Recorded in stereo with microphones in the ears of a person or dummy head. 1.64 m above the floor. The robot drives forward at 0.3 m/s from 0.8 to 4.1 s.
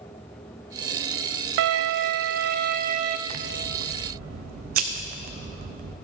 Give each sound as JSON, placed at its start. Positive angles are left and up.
{"t": 1.6, "sound": "a violin", "side_deg": -65, "distance_m": 0.6}
{"t": 3.3, "sound": "scissors", "side_deg": -50, "distance_m": 0.7}